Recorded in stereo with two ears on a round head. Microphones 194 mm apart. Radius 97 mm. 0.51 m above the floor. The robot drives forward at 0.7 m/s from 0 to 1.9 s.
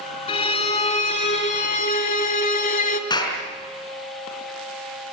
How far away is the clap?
About 5 m.